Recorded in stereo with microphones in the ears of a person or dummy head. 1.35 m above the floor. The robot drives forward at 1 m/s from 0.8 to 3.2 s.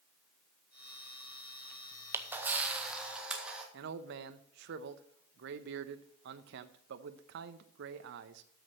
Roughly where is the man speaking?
Right.